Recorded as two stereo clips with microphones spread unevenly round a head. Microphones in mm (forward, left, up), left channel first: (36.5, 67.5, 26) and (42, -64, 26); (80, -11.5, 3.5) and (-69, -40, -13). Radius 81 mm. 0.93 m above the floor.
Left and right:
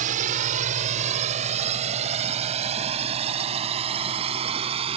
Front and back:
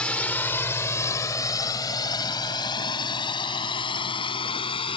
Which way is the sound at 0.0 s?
70° right.